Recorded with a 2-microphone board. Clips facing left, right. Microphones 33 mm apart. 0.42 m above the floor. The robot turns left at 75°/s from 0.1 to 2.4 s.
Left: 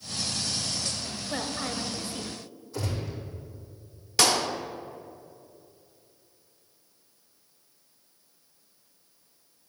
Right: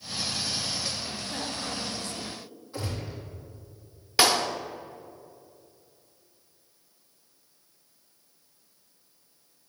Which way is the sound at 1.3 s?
25° left (ahead or behind).